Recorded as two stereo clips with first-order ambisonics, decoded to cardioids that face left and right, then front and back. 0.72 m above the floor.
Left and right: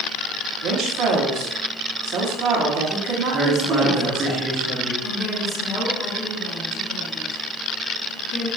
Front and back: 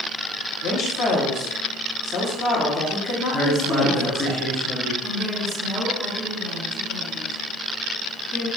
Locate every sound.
0.6 s a woman speaking: 60° right, 0.9 m
3.3 s a man speaking: 45° right, 0.7 m
5.0 s a woman speaking: 75° left, 1.3 m